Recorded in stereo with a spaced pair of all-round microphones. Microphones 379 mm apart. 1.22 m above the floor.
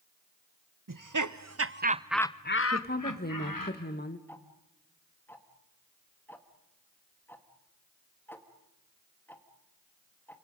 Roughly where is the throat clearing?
No throat clearing in this recording.